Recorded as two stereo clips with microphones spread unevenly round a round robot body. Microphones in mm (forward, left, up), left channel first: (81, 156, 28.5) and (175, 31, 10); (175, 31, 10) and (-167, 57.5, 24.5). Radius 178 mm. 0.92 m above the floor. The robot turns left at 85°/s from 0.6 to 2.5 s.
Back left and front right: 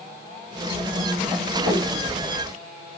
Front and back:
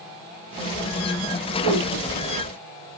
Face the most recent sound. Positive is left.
turn(degrees=110)